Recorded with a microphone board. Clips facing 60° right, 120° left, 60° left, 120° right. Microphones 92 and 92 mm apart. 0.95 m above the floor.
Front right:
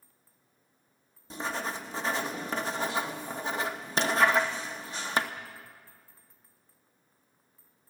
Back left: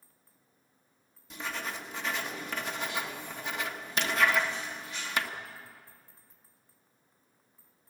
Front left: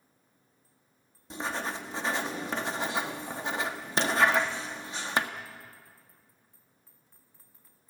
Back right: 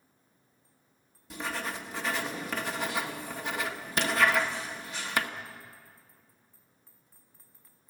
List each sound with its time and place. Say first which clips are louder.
1.3 s writing: front right 4 dB, front left 2 dB; 5° right, 1.1 m